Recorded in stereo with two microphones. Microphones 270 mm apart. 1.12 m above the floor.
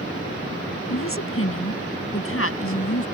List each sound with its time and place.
0.9 s a woman speaking: 55° left (ahead or behind); by 3.1 s 60° left (ahead or behind)